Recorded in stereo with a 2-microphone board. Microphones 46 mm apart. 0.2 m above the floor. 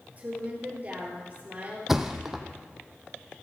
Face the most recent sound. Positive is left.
turn(degrees=-10)  # may be behind; listen again after turning